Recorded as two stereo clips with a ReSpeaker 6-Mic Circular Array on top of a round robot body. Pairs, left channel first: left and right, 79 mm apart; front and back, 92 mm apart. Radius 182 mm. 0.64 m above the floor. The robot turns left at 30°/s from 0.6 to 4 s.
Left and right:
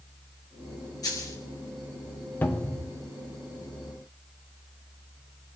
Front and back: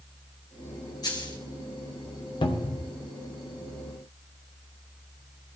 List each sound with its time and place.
1.0 s a dropped coin: 50° left, 2 m; by 1.4 s 35° left, 2 m
2.4 s a cupboard door: 25° left, 1.7 m; by 2.9 s 10° left, 1.7 m